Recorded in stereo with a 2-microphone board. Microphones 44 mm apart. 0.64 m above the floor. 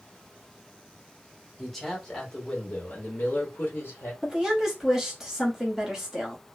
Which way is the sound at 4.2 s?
10° right (ahead or behind).